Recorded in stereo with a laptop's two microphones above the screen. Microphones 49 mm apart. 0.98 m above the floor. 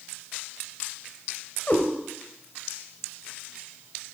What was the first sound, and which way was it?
A cat meowing, 35° left (ahead or behind).